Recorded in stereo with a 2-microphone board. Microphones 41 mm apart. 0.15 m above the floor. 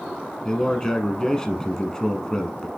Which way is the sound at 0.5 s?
15° left (ahead or behind).